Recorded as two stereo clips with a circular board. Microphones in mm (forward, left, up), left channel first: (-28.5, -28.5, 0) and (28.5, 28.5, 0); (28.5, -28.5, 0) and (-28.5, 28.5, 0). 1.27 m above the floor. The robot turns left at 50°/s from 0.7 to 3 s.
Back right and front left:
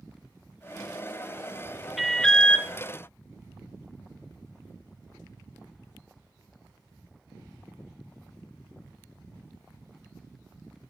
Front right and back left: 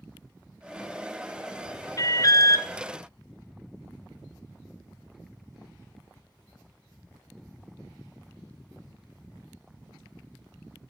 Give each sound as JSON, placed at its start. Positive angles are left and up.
{"t": 2.0, "sound": "an alarm", "azimuth_deg": -45, "distance_m": 0.6}